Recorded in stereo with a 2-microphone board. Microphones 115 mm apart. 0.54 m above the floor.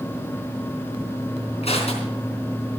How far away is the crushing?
About 4 m.